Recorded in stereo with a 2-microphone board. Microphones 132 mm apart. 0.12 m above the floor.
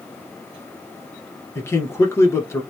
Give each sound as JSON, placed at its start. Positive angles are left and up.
{"t": 1.6, "sound": "a man speaking", "side_deg": 20, "distance_m": 1.6}